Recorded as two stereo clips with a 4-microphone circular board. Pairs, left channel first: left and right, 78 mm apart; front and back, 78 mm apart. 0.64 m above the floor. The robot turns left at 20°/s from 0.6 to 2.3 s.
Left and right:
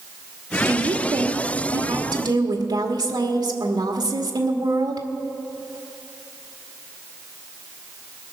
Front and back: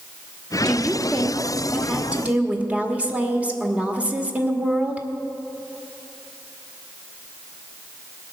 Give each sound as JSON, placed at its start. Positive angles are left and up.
{"t": 0.7, "sound": "a woman speaking", "azimuth_deg": -75, "distance_m": 1.8}